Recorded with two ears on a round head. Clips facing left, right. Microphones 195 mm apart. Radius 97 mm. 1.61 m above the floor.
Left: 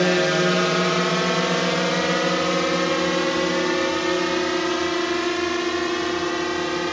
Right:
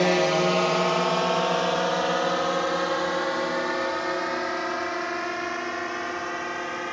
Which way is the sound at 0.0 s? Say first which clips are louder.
Left 2 dB; 15° left (ahead or behind).